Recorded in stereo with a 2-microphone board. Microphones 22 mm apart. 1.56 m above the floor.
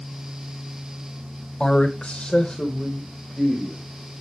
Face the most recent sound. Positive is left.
turn(degrees=35)  # may be behind; listen again after turning